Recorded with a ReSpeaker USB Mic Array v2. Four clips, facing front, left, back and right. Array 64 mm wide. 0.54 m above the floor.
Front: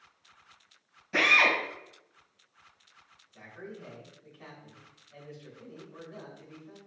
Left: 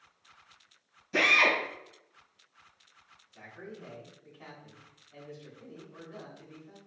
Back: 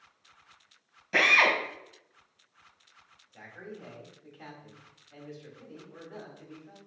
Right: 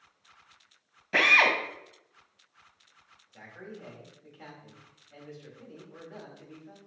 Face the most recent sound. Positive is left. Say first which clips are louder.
# right 1 dB, even
turn(degrees=-130)